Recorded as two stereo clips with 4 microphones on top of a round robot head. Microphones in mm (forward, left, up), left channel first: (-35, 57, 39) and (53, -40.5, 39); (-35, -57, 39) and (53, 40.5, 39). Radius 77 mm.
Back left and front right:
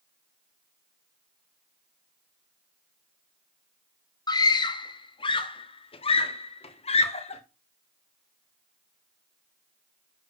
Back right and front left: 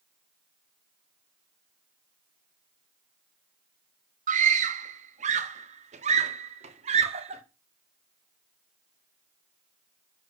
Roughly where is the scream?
Left.